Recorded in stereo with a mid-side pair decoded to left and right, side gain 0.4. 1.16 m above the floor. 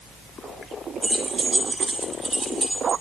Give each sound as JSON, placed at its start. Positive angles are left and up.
{"t": 1.0, "sound": "keys jangling", "azimuth_deg": -35, "distance_m": 6.0}